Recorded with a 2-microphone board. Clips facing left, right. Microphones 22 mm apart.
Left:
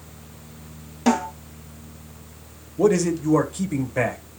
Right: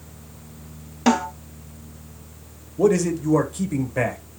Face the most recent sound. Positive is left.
turn(degrees=5)  # may be behind; listen again after turning